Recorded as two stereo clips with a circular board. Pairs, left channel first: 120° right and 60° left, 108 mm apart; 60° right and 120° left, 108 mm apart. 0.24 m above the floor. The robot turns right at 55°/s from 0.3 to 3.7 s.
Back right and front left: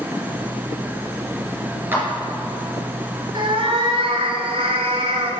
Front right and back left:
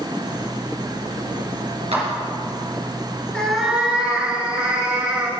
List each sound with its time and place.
1.9 s a clap: 130° left, 3 m; by 2.0 s 140° left, 3 m
3.3 s a cat meowing: 20° left, 1.6 m; by 5.3 s 40° left, 1.6 m